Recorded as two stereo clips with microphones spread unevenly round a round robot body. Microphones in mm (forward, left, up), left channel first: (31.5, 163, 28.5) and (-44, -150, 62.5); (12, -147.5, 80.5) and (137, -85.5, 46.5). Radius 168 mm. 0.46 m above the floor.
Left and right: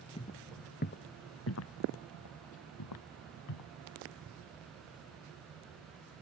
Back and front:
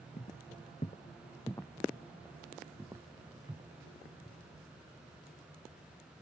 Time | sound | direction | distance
0.2 | footsteps | 150° left | ?